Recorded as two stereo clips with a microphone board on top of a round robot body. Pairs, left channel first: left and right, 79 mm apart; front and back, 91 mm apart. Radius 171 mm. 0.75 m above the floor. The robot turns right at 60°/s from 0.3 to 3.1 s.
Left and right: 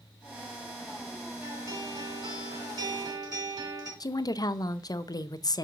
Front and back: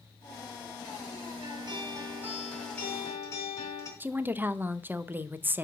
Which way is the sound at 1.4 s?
155° right.